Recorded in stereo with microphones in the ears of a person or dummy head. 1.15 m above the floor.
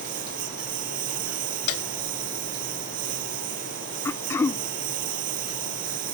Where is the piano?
60° left (ahead or behind).